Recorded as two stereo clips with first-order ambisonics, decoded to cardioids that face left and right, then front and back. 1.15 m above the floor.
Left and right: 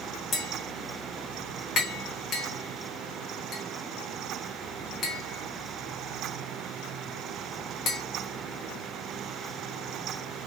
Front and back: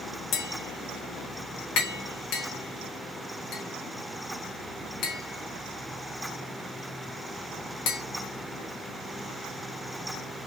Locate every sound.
0.3 s tapping: 35° left, 1.4 m